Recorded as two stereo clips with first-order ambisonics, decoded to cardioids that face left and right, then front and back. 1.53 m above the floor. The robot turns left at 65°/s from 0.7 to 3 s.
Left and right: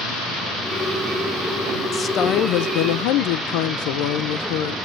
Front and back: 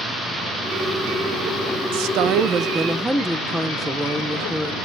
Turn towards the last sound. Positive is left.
turn(degrees=95)